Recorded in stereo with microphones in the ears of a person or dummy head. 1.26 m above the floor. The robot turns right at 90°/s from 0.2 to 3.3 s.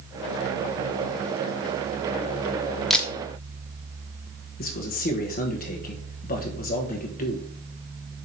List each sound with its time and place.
2.9 s a camera shutter: 5° right (ahead or behind), 0.7 m; by 3.1 s 15° left (ahead or behind), 0.7 m
4.6 s a man speaking: 60° left (ahead or behind), 1.1 m